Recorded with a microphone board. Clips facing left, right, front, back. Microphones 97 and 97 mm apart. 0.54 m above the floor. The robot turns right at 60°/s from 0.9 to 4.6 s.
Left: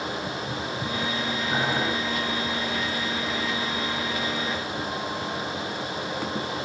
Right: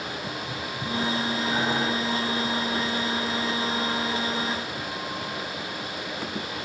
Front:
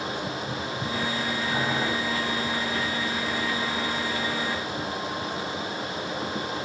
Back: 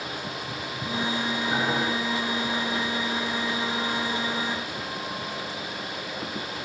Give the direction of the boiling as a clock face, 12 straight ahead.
8 o'clock.